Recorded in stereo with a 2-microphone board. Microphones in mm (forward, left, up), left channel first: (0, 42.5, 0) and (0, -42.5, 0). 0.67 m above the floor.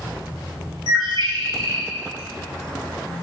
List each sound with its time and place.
0.9 s a bird: 65° right (ahead or behind), 1.3 m